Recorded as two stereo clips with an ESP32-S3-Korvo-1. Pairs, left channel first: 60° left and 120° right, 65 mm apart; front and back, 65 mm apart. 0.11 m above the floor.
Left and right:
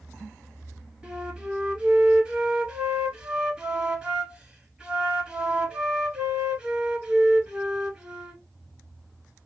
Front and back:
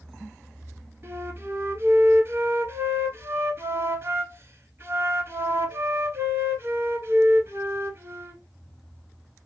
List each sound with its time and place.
1.0 s a flute: straight behind, 0.9 m